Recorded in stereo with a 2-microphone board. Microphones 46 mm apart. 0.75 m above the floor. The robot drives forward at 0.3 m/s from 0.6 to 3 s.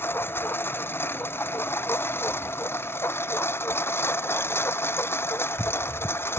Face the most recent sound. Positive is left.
turn(degrees=60)  # may be behind; listen again after turning